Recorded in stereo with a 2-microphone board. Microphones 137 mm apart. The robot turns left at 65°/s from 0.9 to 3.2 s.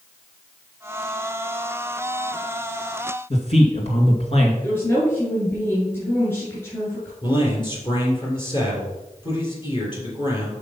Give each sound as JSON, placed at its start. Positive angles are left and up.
{"t": 3.3, "sound": "a man speaking", "side_deg": 50, "distance_m": 2.0}
{"t": 4.6, "sound": "a woman speaking", "side_deg": 15, "distance_m": 2.5}
{"t": 7.2, "sound": "a man speaking", "side_deg": 35, "distance_m": 3.0}